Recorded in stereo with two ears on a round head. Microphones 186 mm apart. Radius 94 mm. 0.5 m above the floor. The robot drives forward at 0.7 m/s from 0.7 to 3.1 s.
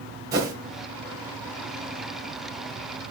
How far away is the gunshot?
I don't hear a gunshot.